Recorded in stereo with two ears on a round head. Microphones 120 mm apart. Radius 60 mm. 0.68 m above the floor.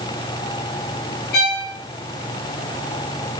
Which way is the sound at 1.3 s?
80° left.